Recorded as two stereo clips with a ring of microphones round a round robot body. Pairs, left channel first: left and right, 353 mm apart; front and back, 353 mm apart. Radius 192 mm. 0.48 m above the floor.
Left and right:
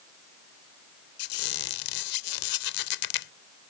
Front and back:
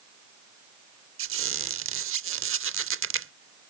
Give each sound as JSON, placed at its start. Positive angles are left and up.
{"t": 1.2, "sound": "a squeak", "azimuth_deg": 125}